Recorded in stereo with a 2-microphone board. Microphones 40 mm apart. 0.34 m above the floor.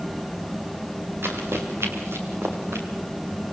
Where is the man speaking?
No man speaking in this recording.